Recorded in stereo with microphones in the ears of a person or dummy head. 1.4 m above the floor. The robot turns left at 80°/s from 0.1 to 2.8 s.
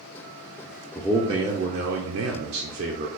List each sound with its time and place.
0.9 s a man speaking: straight ahead, 0.5 m; by 3.1 s 150° right, 0.5 m